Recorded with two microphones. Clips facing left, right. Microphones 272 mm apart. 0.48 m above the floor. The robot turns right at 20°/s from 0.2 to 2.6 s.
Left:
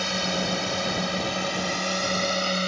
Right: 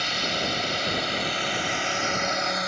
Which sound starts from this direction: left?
A drone, at 0.0 s.